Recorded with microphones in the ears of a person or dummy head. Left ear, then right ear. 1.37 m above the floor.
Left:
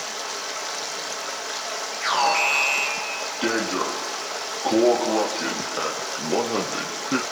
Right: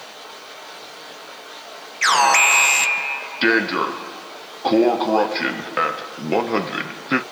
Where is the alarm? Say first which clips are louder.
Right 6 dB; 65° right (ahead or behind), 1.2 m.